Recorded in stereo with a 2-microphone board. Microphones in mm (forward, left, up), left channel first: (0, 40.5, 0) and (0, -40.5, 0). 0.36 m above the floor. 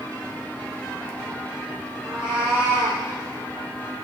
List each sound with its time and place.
2.0 s a cat meowing: 10° right (ahead or behind), 3.5 m; by 3.0 s 15° right (ahead or behind), 2.5 m